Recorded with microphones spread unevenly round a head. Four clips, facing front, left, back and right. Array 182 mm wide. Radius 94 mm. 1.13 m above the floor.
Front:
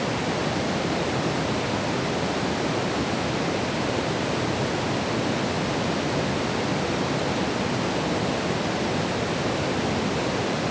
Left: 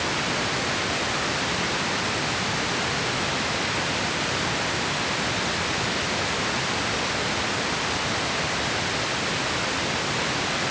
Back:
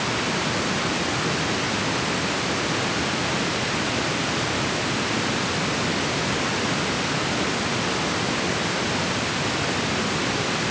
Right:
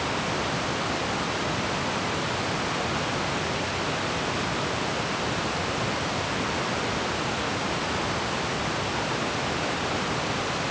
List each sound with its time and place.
Only background noise.